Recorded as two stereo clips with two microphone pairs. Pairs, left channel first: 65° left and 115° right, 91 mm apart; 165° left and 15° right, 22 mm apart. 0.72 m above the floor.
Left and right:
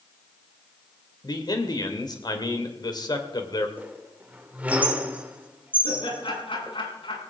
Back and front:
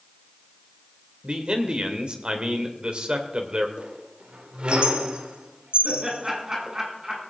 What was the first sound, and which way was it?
A man speaking, 25° left.